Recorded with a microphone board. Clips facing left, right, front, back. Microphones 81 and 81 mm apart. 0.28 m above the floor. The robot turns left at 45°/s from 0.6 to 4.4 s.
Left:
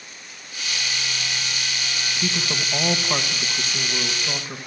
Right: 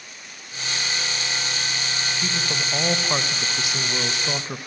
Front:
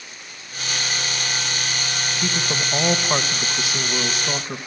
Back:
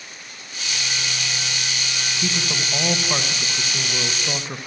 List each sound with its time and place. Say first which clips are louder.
2.2 s a woman speaking: left 3 dB, front 1 dB; 25° left, 1.1 m; by 4.6 s 75° right, 1.1 m